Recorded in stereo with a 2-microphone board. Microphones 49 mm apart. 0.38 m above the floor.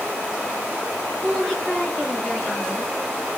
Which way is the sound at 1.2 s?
15° left (ahead or behind).